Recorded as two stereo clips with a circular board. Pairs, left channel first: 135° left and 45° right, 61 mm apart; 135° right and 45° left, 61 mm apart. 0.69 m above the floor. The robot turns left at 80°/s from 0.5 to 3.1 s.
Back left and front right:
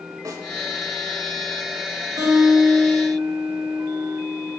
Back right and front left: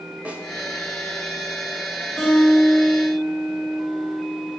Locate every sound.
0.2 s a snare drum: 20° right, 1.2 m
2.2 s a guitar: 60° right, 2 m; by 4.5 s 135° right, 2 m